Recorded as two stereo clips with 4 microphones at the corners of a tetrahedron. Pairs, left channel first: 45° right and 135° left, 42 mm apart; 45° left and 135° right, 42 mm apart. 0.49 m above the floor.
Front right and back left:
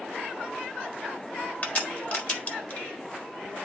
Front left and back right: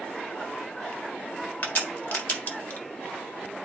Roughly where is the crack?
Ahead.